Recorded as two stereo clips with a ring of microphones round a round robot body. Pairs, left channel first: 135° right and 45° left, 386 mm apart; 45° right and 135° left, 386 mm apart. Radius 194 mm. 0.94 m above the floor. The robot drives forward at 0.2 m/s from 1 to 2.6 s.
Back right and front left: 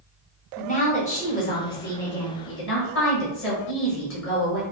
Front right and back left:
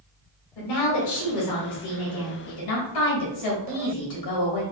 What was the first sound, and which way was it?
A woman speaking, 65° right.